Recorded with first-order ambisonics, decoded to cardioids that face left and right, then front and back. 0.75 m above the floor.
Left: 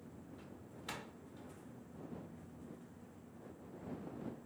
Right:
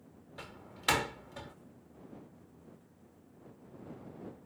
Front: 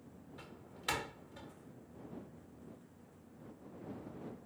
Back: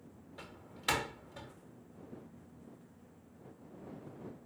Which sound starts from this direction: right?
A door slam, at 0.4 s.